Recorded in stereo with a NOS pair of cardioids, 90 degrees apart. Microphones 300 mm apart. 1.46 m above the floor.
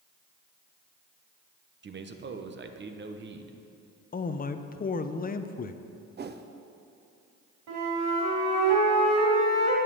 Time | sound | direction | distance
1.8 | a man speaking | 35° right | 1.0 m
4.1 | a man speaking | 30° left | 0.7 m
6.2 | a whoosh | 35° right | 0.7 m
7.7 | a flute | 70° right | 3.5 m